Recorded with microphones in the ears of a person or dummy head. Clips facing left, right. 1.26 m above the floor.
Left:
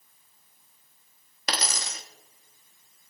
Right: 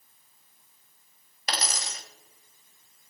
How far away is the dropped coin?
About 1.1 m.